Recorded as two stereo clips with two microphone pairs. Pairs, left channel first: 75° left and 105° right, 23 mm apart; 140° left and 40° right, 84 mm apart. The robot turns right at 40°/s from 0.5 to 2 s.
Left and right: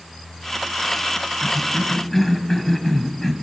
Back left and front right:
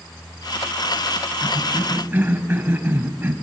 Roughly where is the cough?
Ahead.